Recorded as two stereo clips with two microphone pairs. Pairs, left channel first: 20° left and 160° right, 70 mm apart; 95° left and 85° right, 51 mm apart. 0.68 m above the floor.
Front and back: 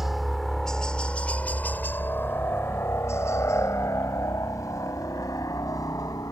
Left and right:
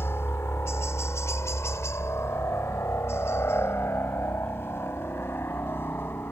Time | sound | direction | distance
0.0 | a helicopter | 115° left | ?